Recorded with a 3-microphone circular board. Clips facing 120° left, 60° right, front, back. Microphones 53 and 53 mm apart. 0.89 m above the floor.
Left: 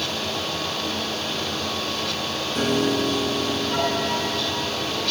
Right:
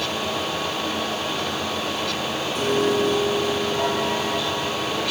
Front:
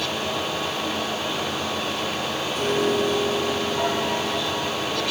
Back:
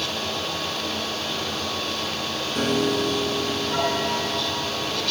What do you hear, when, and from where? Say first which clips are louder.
2.5 s a piano: right 1 dB, even; 165° left, 5 m